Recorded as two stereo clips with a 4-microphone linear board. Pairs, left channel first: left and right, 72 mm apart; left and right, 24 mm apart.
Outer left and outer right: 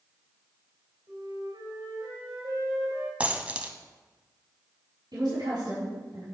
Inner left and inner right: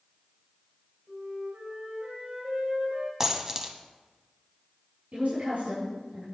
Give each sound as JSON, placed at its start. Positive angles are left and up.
{"t": 1.1, "sound": "a flute", "side_deg": -75, "distance_m": 3.5}
{"t": 3.2, "sound": "a dropped coin", "side_deg": -20, "distance_m": 0.9}
{"t": 5.1, "sound": "a woman speaking", "side_deg": -85, "distance_m": 5.0}